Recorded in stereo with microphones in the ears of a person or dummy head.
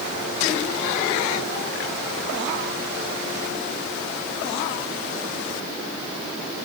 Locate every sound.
Only background noise.